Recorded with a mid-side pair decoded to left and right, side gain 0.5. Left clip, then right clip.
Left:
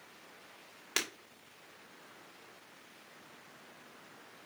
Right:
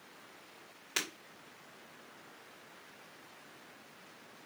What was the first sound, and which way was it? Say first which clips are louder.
Breaking glass: left 1 dB; 35° left.